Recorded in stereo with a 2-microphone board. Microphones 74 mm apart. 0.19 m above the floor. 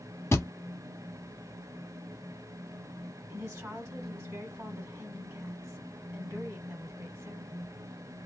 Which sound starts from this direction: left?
A thud, at 0.3 s.